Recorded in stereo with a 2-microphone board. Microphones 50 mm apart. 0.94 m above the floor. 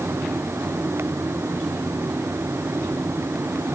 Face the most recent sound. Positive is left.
No sound to turn to.